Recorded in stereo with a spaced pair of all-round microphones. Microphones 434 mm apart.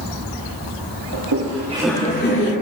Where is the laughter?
60° right (ahead or behind), 0.8 m; by 2.5 s 30° left (ahead or behind), 1.2 m.